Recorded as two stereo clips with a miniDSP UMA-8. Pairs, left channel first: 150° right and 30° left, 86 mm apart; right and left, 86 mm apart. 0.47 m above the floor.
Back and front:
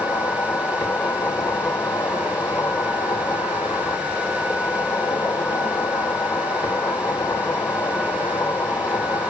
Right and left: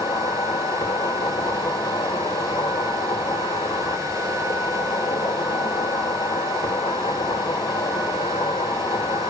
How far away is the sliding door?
No sliding door in this recording.